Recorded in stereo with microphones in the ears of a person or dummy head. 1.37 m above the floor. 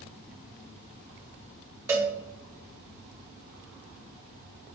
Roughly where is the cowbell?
Centre.